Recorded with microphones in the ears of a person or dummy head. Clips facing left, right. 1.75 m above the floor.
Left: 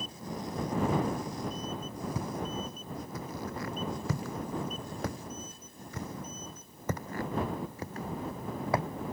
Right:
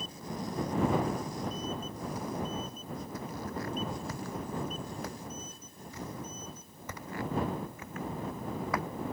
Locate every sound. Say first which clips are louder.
2.1 s footsteps: right 1 dB; 75° left (ahead or behind); by 8.9 s 25° left (ahead or behind)